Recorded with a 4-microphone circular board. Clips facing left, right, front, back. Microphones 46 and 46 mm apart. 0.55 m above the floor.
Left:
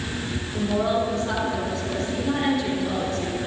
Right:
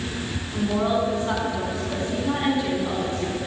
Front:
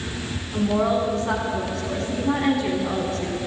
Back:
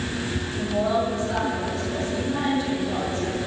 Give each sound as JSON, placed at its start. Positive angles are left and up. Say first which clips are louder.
{"t": 0.5, "sound": "a woman speaking", "louder": "even, front 3 dB", "azimuth_deg": -15, "distance_m": 5.0}